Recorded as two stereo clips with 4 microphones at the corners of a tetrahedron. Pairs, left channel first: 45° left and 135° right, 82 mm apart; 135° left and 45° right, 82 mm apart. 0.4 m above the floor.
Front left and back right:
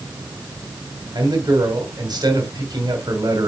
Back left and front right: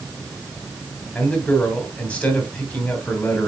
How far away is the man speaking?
About 2.5 m.